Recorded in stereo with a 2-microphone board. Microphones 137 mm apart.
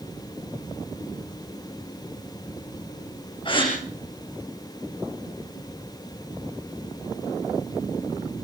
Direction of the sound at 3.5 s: 40° left (ahead or behind).